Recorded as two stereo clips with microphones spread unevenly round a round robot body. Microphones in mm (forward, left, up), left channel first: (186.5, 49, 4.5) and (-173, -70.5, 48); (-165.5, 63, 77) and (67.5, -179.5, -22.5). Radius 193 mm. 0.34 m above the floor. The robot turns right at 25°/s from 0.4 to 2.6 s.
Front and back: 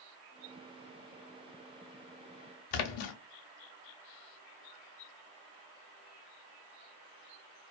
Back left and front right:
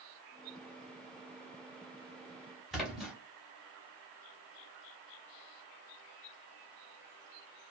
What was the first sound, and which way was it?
A splash, 40° left.